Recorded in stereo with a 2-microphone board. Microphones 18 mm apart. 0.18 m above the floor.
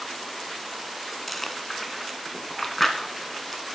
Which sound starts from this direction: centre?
Chewing, at 1.3 s.